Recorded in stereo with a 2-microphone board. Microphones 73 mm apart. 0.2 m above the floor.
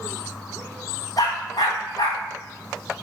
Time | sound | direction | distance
1.2 | a dog barking | 60° left (ahead or behind) | 2.5 m